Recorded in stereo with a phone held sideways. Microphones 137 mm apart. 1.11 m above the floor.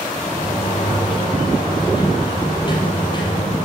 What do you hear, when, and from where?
0.2 s a sliding door: 30° left (ahead or behind), 5 m